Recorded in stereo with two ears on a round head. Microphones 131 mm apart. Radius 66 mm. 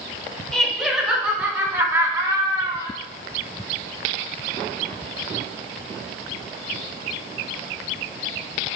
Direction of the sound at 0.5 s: 5° left (ahead or behind).